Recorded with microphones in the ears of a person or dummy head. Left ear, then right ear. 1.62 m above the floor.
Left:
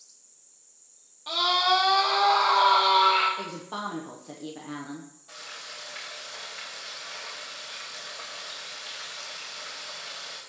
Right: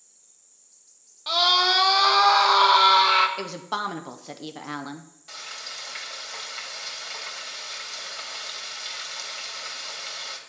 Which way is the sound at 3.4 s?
50° right (ahead or behind).